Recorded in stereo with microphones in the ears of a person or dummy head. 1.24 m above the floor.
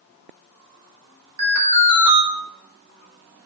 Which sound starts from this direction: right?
An alarm, at 1.4 s.